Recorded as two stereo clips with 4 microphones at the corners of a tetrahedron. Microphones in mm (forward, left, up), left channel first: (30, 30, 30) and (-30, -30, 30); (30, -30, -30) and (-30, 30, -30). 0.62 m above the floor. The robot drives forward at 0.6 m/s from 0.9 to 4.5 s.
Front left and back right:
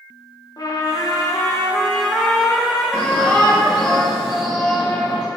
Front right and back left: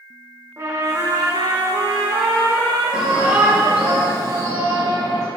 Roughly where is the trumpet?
Left.